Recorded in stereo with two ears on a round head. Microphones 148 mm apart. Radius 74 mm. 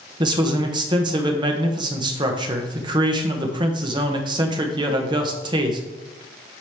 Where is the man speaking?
30° right (ahead or behind), 1.1 m.